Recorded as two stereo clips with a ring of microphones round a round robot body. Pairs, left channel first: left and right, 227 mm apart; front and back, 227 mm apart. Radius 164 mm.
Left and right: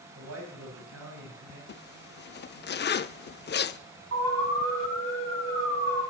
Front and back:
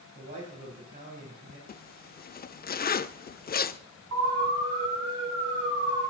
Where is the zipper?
50° left, 0.5 m.